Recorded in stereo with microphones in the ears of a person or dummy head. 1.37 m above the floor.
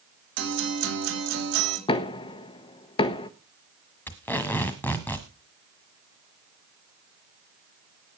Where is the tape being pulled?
10° left (ahead or behind), 1.5 m.